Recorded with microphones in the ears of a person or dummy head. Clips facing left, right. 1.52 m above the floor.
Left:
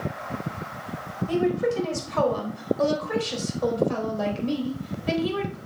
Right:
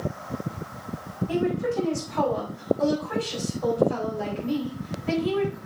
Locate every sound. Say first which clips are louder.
1.3 s a woman speaking: left 2 dB; 80° left, 4 m; by 5.6 s 55° left (ahead or behind), 3.5 m